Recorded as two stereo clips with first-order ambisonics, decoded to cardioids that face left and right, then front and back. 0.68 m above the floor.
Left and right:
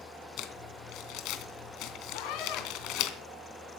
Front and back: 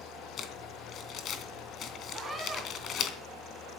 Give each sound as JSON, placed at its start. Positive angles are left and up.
{"t": 0.4, "sound": "crumpling", "azimuth_deg": 55, "distance_m": 2.5}
{"t": 2.1, "sound": "a scream", "azimuth_deg": 100, "distance_m": 5.0}